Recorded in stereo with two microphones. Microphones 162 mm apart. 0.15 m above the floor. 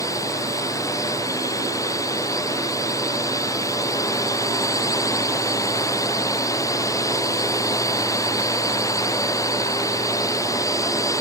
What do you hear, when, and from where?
0.0 s a drone: 20° left (ahead or behind)